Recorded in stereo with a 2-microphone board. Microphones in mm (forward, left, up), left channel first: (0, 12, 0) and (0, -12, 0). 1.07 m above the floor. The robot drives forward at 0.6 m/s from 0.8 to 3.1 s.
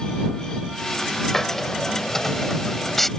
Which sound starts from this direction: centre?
A hiss, at 1.3 s.